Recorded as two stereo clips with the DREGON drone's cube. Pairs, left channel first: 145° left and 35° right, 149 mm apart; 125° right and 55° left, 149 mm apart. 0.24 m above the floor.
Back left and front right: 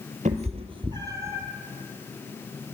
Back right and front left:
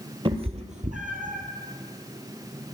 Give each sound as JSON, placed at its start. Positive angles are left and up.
{"t": 0.2, "sound": "a cat meowing", "azimuth_deg": 0, "distance_m": 1.3}